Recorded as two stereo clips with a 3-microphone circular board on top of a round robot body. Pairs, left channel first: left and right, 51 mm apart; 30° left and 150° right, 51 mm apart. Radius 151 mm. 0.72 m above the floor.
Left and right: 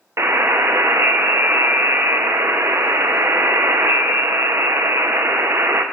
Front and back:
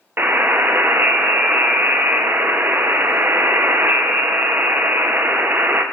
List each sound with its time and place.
0.2 s a buzzer: 110° right, 0.7 m